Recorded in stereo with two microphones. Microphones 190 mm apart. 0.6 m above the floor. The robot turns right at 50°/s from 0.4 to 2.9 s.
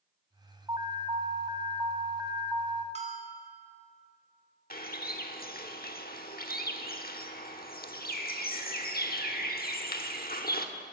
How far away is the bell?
About 1.5 m.